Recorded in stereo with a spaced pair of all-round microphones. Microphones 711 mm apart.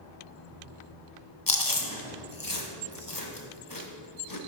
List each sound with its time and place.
1.5 s chewing: 30° left (ahead or behind), 0.8 m